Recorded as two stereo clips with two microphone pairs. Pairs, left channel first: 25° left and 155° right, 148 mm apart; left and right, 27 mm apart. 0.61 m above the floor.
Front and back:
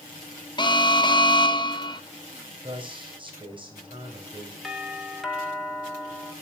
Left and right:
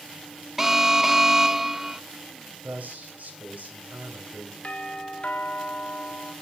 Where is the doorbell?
115° left, 1.9 m.